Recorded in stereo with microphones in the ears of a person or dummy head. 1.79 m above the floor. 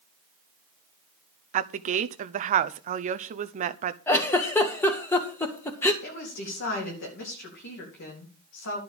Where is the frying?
I don't hear frying.